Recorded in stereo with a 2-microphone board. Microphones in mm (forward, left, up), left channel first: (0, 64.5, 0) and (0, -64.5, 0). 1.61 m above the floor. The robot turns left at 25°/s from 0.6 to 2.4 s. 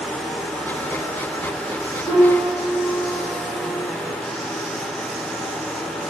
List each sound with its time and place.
2.0 s a piano: 45° left (ahead or behind), 1.8 m; by 3.8 s 50° left (ahead or behind), 1.8 m